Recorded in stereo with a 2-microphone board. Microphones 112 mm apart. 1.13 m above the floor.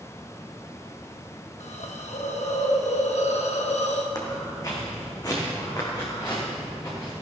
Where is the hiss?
85° left, 1.2 m.